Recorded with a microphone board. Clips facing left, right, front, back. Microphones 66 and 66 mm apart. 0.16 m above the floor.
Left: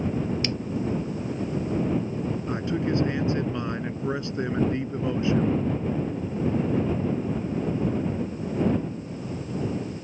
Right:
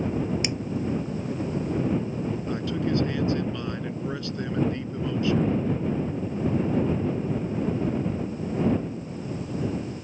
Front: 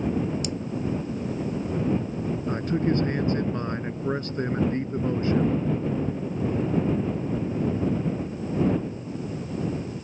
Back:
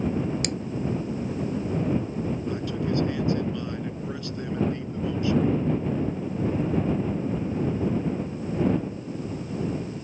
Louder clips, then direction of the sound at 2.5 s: Left 1 dB, front 3 dB; 30° left.